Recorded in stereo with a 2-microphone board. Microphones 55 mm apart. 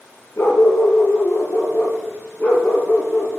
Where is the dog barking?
55° left (ahead or behind), 3.5 m; by 3.4 s 25° left (ahead or behind), 4 m.